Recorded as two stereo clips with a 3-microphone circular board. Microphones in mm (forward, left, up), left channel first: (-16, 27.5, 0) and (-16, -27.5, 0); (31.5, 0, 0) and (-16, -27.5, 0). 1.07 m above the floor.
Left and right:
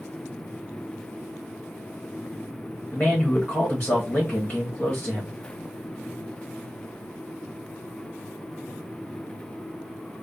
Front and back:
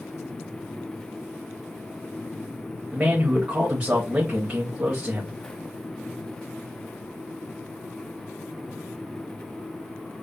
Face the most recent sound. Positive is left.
turn(degrees=155)